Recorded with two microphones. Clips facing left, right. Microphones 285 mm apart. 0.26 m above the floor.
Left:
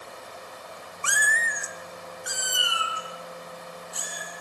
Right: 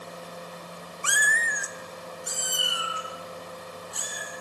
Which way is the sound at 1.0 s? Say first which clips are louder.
Left 1 dB; 55° left (ahead or behind).